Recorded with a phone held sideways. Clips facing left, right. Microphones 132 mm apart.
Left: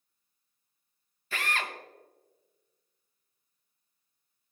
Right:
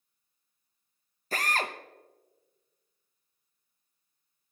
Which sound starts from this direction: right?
A drill, at 1.3 s.